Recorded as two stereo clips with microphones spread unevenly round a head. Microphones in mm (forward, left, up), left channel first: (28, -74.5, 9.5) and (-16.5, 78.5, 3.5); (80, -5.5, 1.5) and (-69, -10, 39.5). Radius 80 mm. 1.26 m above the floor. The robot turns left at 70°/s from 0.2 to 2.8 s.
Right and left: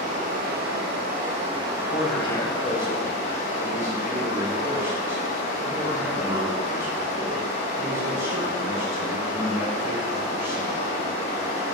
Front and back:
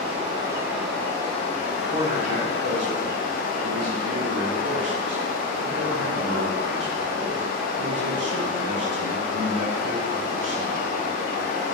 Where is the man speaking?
110° right, 0.8 m; by 10.9 s 175° right, 0.8 m.